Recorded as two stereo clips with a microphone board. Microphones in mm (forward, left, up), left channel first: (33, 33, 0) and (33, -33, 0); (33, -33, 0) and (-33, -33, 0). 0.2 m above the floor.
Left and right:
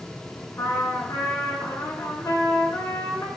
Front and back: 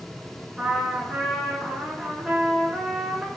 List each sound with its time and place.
0.6 s a trumpet: 105° left, 0.6 m